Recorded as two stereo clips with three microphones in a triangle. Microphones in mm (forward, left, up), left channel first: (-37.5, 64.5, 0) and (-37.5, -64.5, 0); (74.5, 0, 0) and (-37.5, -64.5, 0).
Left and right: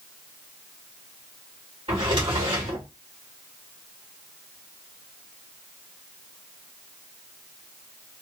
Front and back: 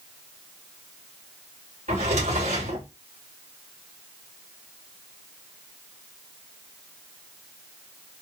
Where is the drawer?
135° right, 2.5 m.